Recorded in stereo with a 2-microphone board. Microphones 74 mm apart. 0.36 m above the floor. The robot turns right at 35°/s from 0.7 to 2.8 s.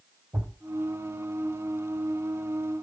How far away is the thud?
About 3 m.